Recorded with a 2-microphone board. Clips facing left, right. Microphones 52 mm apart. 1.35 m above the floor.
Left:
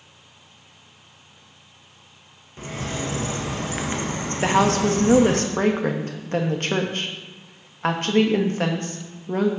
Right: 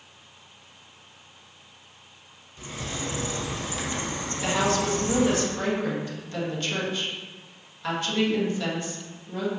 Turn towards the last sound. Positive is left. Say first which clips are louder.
# left 6 dB
turn(degrees=45)  # may be behind; listen again after turning